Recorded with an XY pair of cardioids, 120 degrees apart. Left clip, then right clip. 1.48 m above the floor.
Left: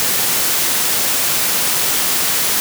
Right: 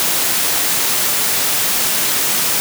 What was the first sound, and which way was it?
Only background noise.